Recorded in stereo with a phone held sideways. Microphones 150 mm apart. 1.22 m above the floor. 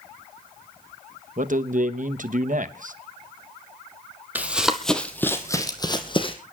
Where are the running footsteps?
10° right (ahead or behind), 1.7 m; by 6.4 s 35° left (ahead or behind), 2.5 m.